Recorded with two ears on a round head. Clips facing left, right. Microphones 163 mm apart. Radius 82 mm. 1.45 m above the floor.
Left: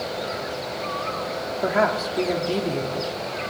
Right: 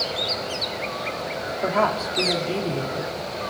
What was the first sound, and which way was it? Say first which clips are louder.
A woman speaking: left 1 dB; 10° left (ahead or behind).